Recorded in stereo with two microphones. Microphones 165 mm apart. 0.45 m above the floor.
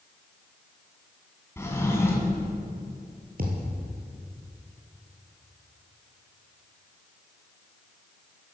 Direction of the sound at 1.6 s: 15° left (ahead or behind).